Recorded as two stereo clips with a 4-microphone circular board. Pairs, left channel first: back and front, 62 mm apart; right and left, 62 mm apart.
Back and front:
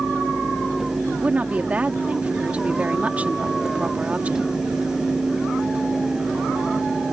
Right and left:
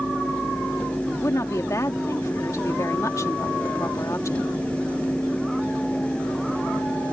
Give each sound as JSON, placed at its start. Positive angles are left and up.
{"t": 1.1, "sound": "a woman speaking", "azimuth_deg": -60}